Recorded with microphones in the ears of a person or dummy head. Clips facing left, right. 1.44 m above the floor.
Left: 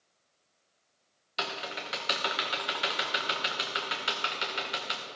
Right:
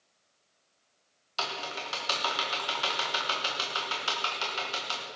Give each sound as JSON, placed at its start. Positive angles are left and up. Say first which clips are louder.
{"t": 1.4, "sound": "typing on a keyboard", "louder": "even", "side_deg": 25, "distance_m": 1.3}